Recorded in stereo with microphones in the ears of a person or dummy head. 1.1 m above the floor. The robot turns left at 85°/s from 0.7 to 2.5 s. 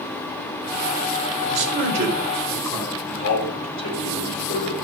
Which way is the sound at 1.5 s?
90° right.